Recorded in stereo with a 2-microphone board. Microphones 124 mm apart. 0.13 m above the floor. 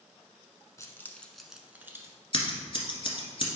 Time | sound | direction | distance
0.8 | keys jangling | 25° left (ahead or behind) | 0.9 m
2.3 | scissors | 45° left (ahead or behind) | 1.6 m